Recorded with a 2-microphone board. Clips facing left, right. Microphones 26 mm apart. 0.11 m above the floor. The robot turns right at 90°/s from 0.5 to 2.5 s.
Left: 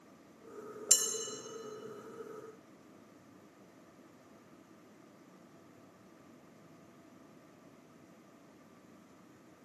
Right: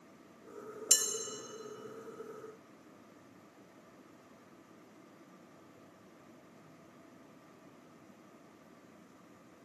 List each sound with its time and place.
0.9 s dishes clattering: 30° right (ahead or behind), 0.9 m; by 1.0 s 25° right (ahead or behind), 0.9 m